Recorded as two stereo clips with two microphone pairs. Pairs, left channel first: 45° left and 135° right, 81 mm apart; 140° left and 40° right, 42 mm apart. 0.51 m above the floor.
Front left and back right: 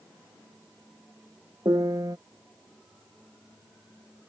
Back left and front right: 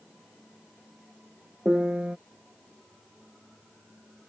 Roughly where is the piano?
Right.